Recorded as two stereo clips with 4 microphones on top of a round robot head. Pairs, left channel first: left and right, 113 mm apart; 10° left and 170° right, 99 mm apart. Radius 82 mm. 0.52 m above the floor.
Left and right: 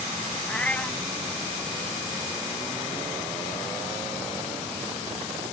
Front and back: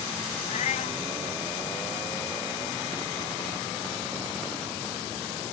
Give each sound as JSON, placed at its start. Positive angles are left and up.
{"t": 0.5, "sound": "a cat meowing", "azimuth_deg": 10}